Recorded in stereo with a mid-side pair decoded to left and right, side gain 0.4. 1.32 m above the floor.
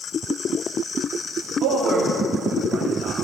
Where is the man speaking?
55° right, 3 m.